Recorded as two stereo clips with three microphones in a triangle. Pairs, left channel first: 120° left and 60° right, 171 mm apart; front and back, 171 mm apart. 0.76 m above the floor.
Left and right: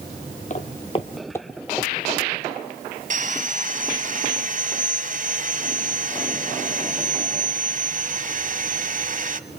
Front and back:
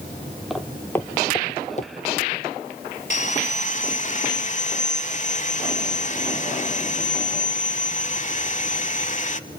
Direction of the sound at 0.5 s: 95° left.